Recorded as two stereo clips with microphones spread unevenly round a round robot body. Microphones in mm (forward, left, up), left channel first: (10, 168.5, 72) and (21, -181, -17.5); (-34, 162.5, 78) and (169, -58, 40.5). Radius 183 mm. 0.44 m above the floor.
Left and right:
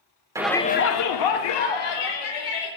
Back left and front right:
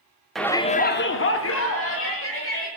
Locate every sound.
0.3 s a shout: 125° right, 0.8 m; by 2.7 s 85° left, 2.5 m